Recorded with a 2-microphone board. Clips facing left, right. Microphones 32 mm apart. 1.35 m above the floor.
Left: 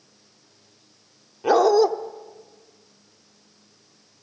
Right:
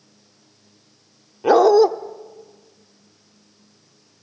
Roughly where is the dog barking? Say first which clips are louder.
Right 4 dB; centre.